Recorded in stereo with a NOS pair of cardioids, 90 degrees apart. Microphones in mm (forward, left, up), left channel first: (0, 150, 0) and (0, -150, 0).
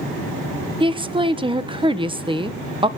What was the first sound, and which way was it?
A woman speaking, 15° right.